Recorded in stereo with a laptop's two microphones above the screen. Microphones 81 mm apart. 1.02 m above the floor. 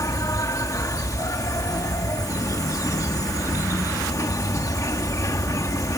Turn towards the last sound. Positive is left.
turn(degrees=45)  # may be behind; listen again after turning